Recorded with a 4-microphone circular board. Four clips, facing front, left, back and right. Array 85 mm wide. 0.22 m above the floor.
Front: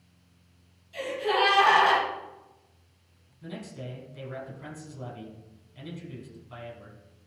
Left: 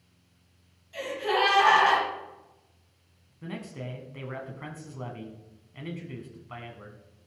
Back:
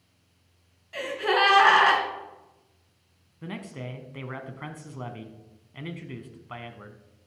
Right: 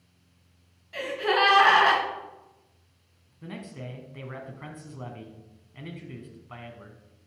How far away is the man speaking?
About 1.5 m.